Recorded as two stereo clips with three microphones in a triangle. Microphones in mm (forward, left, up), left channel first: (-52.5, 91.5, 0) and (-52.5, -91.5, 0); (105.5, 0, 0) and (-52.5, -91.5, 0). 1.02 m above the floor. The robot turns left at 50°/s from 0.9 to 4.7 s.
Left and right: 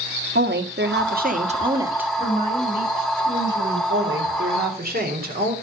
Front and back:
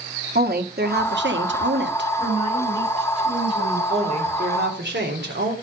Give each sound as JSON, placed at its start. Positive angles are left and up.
{"t": 0.3, "sound": "a woman speaking", "azimuth_deg": -115, "distance_m": 1.4}
{"t": 2.2, "sound": "a woman speaking", "azimuth_deg": -15, "distance_m": 6.5}
{"t": 3.9, "sound": "a woman speaking", "azimuth_deg": -85, "distance_m": 3.0}